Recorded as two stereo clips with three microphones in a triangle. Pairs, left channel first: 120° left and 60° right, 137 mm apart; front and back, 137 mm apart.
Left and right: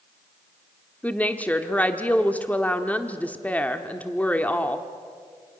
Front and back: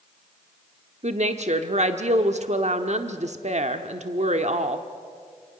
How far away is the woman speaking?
About 1.1 m.